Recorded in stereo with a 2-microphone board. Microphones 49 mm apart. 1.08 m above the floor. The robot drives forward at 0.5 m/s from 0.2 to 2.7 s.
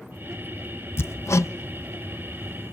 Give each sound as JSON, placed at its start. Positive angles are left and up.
{"t": 1.0, "sound": "hammering", "side_deg": 55, "distance_m": 0.6}